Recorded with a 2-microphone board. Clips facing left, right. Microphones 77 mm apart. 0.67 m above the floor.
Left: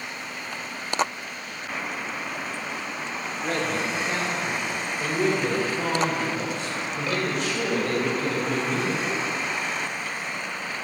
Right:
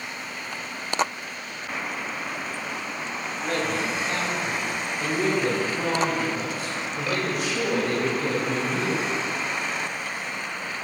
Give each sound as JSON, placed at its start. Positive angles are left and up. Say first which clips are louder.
{"t": 3.4, "sound": "a man speaking", "louder": "even", "side_deg": 25, "distance_m": 1.9}